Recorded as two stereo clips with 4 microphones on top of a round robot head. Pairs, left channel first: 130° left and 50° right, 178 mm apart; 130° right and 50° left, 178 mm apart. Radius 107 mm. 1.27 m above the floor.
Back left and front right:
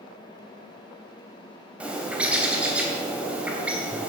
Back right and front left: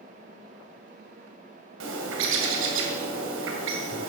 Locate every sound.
1.8 s a bird: 35° left, 2 m